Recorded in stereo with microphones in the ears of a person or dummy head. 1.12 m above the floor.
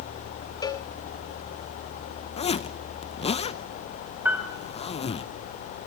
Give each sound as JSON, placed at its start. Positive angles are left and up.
{"t": 0.6, "sound": "a cowbell", "side_deg": 25, "distance_m": 0.8}
{"t": 2.4, "sound": "a zipper", "side_deg": 30, "distance_m": 0.7}
{"t": 4.2, "sound": "a piano", "side_deg": -5, "distance_m": 4.0}